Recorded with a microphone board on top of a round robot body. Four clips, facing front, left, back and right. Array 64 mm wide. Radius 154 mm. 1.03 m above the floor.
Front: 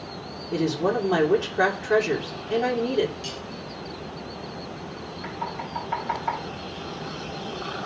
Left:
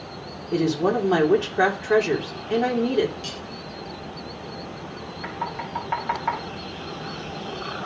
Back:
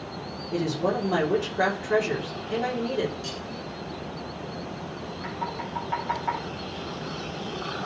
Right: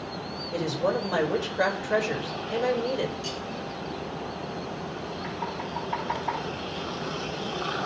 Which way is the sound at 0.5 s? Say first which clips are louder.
Left 5 dB, front 2 dB; 75° left.